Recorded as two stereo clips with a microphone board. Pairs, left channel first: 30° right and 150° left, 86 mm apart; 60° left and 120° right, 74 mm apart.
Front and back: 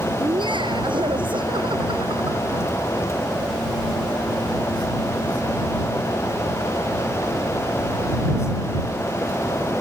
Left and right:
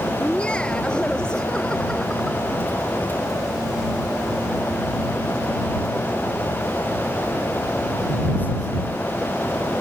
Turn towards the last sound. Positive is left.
turn(degrees=145)